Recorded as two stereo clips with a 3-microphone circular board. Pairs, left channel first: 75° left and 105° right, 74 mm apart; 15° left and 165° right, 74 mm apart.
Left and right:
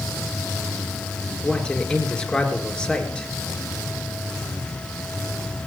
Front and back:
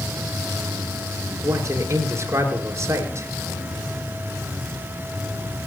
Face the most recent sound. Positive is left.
turn(degrees=155)